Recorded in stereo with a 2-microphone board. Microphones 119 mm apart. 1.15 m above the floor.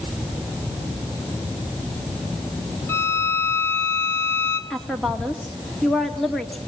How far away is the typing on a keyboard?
No typing on a keyboard in this recording.